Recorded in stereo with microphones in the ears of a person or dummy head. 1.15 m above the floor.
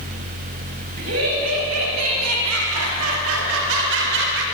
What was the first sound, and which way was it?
Laughter, 75° right (ahead or behind).